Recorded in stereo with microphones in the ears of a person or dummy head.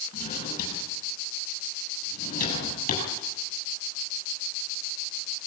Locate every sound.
0.1 s a drawer: 45° left (ahead or behind), 9 m